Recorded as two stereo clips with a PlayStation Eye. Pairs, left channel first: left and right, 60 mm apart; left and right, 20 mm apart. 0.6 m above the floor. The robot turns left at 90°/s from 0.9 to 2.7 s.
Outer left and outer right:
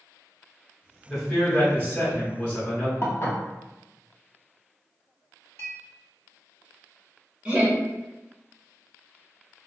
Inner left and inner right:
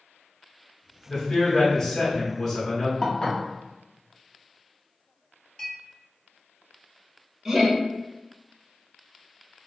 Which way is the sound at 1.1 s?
170° right.